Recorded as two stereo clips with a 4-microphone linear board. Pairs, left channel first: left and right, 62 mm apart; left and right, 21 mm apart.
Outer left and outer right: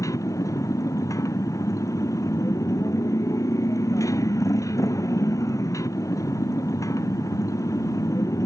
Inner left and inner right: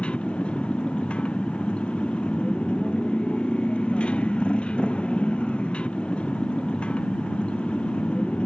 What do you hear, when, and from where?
0.0 s a motorcycle: 60° left (ahead or behind)